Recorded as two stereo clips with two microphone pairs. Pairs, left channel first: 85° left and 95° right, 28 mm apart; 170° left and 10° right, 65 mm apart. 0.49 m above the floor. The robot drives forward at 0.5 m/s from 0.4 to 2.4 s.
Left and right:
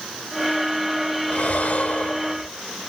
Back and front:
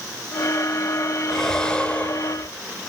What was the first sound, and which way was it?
Breathing, 85° left.